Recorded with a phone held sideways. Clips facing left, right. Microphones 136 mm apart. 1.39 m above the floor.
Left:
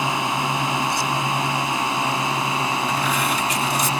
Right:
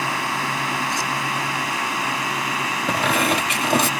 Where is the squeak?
65° right (ahead or behind).